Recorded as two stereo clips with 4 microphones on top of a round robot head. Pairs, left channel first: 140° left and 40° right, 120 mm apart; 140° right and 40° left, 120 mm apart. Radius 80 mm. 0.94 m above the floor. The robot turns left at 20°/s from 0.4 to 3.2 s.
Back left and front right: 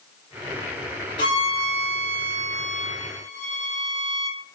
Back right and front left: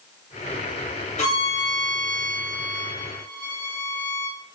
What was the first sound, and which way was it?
A violin, 170° right.